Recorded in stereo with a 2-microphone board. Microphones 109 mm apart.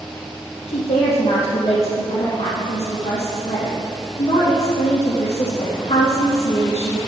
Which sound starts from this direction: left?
A woman speaking, at 0.7 s.